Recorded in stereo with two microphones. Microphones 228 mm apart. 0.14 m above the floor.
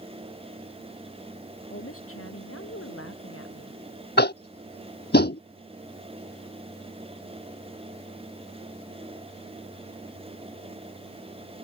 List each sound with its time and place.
1.7 s a woman speaking: 75° left (ahead or behind)
4.2 s tapping: 50° left (ahead or behind)